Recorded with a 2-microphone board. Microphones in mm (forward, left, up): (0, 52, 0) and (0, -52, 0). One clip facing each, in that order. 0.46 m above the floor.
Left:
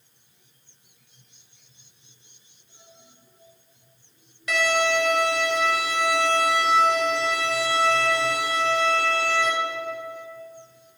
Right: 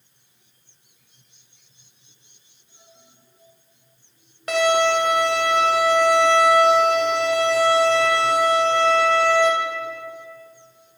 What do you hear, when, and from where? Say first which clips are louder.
4.5 s a violin: right 5 dB; 50° right (ahead or behind), 1.3 m